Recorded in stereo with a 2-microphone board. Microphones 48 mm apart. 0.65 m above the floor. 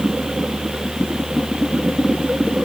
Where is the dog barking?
No dog barking in this recording.